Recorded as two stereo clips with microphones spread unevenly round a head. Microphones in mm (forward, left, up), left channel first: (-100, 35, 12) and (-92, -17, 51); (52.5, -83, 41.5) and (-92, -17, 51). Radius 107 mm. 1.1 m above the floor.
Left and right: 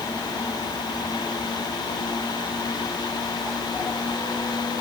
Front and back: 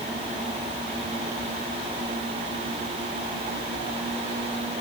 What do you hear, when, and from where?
Only background noise.